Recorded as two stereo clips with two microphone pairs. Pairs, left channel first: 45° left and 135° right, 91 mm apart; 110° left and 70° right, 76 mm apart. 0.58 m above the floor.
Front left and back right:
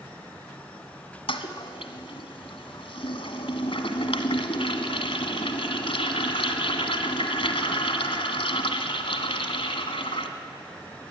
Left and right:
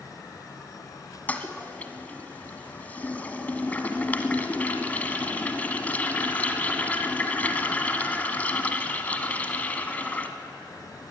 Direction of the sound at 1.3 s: 40° left.